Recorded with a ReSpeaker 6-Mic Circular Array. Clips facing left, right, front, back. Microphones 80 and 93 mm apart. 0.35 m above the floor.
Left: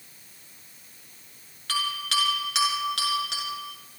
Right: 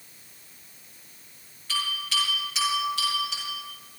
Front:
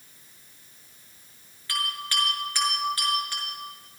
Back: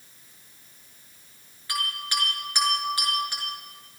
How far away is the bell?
About 6 m.